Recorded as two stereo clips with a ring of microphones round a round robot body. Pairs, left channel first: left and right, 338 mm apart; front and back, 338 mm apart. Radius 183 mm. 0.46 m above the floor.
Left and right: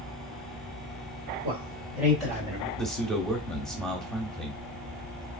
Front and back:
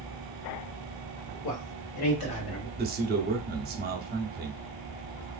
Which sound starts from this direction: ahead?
A man speaking, at 1.4 s.